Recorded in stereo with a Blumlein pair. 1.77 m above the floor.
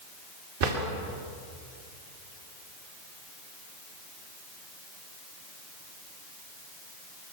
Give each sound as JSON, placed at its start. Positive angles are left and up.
{"t": 0.6, "sound": "a drawer", "azimuth_deg": -50, "distance_m": 3.0}